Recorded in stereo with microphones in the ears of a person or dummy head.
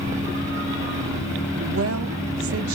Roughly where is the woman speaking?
Right.